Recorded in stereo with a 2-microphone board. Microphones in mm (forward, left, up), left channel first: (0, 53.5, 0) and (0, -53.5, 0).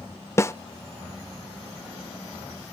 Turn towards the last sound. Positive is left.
turn(degrees=25)  # may be behind; listen again after turning